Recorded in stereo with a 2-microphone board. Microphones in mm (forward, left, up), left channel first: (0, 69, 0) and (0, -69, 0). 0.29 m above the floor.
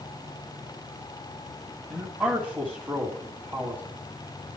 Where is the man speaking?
5° left (ahead or behind), 2 m.